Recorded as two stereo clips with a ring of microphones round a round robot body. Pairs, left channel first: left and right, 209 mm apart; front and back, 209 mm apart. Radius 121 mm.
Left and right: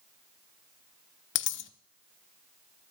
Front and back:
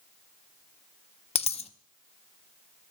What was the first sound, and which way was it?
A dropped coin, 60° left.